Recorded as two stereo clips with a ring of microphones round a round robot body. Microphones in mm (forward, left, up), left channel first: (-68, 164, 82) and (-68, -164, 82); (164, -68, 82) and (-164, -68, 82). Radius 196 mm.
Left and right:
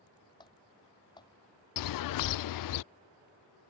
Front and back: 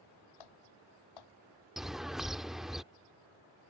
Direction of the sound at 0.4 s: 10° left.